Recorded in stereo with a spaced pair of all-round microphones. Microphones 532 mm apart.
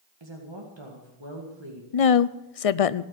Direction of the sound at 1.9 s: 80° left.